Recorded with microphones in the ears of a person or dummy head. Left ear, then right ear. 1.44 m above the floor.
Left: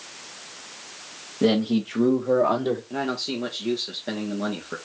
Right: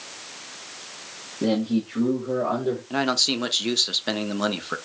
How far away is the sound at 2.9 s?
About 0.5 m.